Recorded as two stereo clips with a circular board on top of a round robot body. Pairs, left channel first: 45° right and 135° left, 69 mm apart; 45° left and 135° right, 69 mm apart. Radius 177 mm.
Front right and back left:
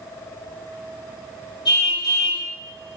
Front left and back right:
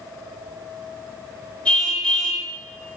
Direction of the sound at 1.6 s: 30° right.